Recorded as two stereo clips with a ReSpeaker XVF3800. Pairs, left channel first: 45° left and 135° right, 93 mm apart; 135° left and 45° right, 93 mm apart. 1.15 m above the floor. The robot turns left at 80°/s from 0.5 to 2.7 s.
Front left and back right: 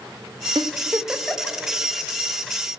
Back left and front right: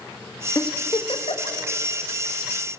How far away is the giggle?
About 1.2 m.